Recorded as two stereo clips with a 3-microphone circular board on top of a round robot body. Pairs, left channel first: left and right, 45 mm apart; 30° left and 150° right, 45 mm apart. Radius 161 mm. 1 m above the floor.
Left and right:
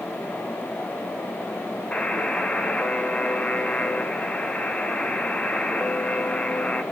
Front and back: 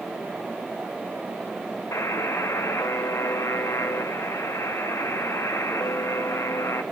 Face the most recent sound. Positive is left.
turn(degrees=25)